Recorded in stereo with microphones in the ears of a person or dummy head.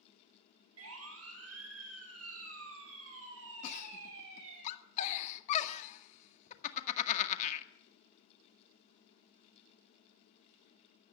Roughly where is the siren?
Right.